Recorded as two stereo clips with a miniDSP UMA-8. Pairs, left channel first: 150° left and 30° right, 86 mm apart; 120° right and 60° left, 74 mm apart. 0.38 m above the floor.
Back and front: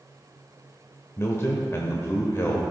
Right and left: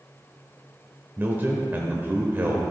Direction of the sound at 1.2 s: 110° left.